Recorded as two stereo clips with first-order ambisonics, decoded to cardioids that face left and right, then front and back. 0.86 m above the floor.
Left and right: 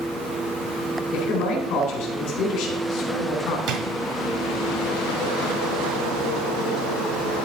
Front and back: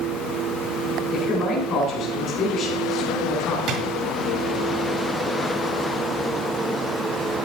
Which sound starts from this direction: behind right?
A drawer, at 3.7 s.